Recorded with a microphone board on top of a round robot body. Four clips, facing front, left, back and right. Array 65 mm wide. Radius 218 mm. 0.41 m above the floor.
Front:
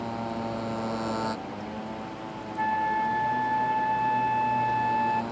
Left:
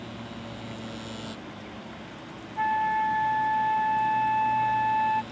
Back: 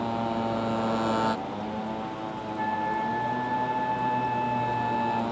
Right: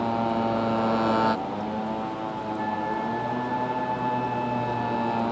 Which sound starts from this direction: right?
A motorcycle, at 0.0 s.